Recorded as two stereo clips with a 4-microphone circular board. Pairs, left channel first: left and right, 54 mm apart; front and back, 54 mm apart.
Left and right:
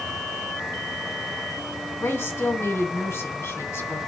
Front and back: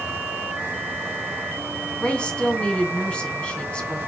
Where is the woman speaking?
65° left, 2.5 m.